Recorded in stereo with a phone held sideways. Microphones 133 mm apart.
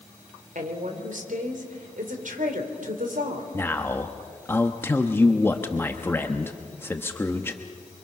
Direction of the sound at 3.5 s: 15° left (ahead or behind).